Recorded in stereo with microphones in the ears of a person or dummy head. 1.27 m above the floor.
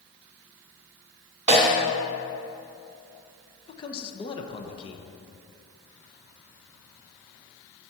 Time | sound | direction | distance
1.5 | a snare drum | 40° right (ahead or behind) | 1.7 m
3.7 | a man speaking | 25° left (ahead or behind) | 0.9 m